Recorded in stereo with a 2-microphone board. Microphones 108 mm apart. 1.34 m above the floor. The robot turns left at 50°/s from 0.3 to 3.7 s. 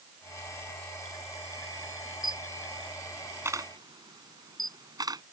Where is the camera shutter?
40° left (ahead or behind); by 5.2 s 35° right (ahead or behind).